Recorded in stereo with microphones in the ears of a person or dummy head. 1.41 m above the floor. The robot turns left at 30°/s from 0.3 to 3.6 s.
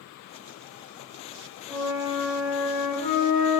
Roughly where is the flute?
Ahead.